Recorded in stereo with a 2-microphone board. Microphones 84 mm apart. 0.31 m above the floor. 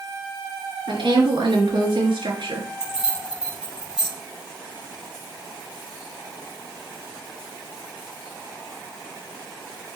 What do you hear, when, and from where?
0.9 s a woman speaking: 75° right (ahead or behind), 4 m
2.8 s keys jangling: 10° right (ahead or behind), 7 m